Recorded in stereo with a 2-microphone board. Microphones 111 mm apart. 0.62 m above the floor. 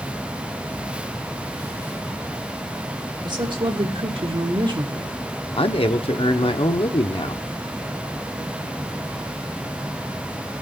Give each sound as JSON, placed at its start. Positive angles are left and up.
{"t": 3.2, "sound": "a woman speaking", "side_deg": -45, "distance_m": 2.0}
{"t": 5.6, "sound": "a man speaking", "side_deg": 60, "distance_m": 1.0}